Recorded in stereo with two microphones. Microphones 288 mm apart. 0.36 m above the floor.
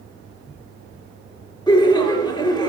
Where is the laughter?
15° left (ahead or behind), 0.9 m.